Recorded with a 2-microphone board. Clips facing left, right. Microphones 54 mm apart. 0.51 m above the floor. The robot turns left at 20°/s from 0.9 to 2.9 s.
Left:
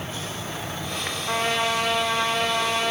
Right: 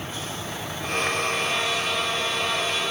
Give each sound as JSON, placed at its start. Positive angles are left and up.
{"t": 1.3, "sound": "a trumpet", "azimuth_deg": 100, "distance_m": 7.5}